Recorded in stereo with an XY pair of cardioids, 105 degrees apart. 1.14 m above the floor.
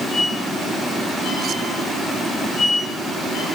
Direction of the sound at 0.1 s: 60° left.